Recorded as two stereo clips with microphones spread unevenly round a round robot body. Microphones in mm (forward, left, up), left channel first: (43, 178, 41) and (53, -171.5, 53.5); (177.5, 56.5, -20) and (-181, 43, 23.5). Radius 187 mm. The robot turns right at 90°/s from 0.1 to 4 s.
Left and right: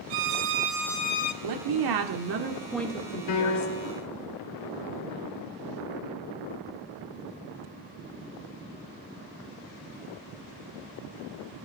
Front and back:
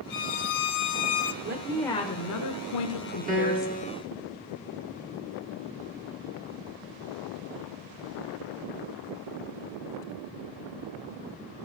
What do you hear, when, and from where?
0.1 s a violin: 65° right, 0.9 m; by 1.3 s 45° left, 0.9 m
1.4 s a woman speaking: 120° right, 1.2 m; by 3.8 s 95° left, 1.2 m
3.3 s a piano: 110° left, 2.5 m; by 4.0 s 175° left, 2.5 m